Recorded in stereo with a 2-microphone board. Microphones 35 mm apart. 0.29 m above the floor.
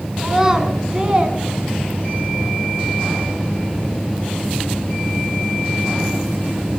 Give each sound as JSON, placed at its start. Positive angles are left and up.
{"t": 0.2, "sound": "a child speaking", "side_deg": -10, "distance_m": 2.5}